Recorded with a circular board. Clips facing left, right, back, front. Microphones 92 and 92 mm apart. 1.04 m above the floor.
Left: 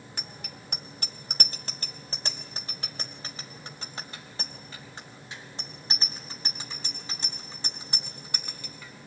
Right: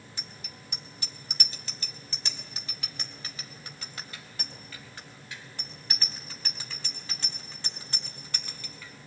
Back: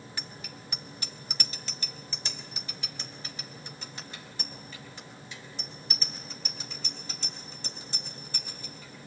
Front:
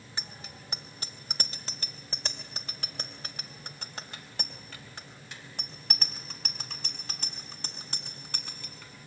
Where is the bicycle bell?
60° left, 2.5 m; by 8.9 s 15° left, 7.5 m.